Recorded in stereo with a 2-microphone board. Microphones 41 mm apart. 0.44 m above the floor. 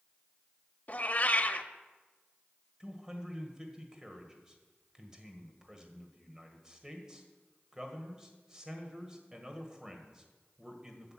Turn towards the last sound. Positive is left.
turn(degrees=-15)  # may be behind; listen again after turning